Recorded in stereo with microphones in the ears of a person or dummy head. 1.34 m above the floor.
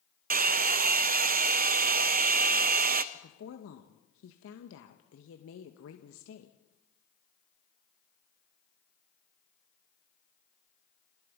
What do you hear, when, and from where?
0.3 s a hair dryer: 40° right (ahead or behind), 0.8 m
3.1 s a woman speaking: 75° left (ahead or behind), 1.7 m